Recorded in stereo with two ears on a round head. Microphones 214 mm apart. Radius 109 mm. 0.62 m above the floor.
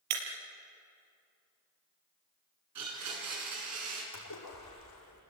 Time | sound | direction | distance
0.1 | breaking glass | 80° right | 4 m
2.8 | a blender | 80° right | 6.5 m
4.1 | a splash | 80° left | 8.5 m